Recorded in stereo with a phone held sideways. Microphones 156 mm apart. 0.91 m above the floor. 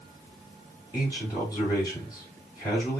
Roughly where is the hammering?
No hammering in this recording.